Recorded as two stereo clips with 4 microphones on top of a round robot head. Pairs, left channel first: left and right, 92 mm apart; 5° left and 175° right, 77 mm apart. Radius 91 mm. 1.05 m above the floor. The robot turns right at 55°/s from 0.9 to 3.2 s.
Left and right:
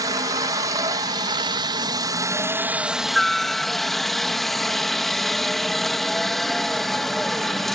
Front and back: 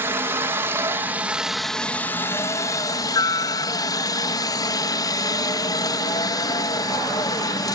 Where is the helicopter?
125° right; by 7.8 s 5° left.